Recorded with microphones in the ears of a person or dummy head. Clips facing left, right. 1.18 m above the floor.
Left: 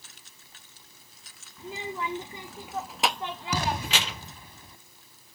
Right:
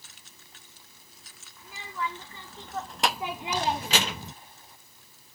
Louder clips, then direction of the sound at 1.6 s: Left 2 dB; 25° left (ahead or behind).